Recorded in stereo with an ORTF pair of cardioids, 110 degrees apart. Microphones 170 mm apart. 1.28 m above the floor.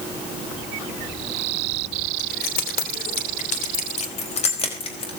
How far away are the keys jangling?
About 3 m.